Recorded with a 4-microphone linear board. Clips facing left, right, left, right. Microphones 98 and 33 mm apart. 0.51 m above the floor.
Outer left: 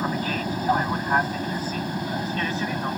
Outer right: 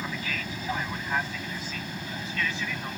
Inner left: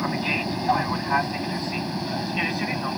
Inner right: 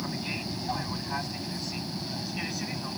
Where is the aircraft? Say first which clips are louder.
Outer left 8 dB, inner left 9 dB; 40° left (ahead or behind).